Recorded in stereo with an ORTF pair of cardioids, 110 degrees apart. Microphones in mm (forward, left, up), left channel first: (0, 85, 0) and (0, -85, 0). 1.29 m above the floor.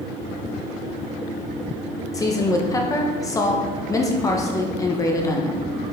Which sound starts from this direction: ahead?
A woman speaking, at 2.1 s.